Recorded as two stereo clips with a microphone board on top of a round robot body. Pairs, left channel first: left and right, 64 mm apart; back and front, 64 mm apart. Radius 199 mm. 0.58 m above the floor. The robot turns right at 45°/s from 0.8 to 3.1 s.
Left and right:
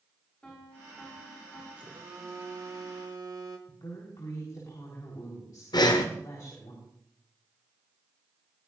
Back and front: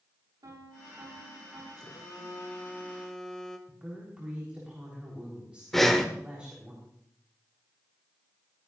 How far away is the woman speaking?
About 3.5 m.